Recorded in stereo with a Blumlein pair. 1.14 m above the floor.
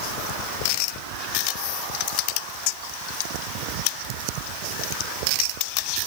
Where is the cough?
No cough in this recording.